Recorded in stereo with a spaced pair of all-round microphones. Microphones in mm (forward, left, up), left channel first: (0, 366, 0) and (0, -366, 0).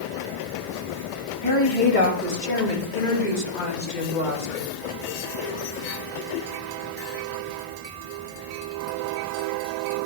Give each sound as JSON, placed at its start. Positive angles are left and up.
{"t": 1.4, "sound": "a woman speaking", "side_deg": 40, "distance_m": 2.5}